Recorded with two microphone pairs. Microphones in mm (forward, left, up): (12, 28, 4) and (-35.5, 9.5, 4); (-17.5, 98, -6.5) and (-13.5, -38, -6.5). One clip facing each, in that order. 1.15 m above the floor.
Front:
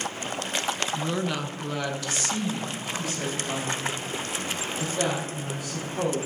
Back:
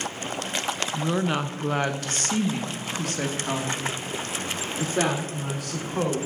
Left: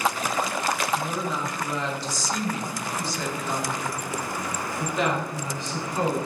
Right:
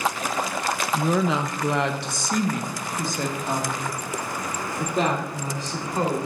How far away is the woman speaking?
About 0.5 m.